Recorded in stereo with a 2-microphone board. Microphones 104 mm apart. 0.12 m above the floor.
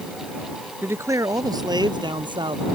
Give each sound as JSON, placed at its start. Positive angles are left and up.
{"t": 0.8, "sound": "a man speaking", "side_deg": -20}